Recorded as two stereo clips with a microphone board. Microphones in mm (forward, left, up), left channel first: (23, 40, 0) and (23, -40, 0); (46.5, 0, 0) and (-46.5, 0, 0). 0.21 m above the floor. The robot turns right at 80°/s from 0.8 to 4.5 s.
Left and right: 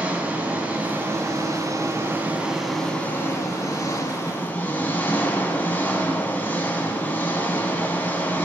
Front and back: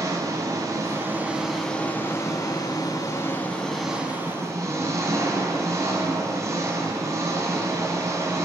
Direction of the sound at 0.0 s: 150° right.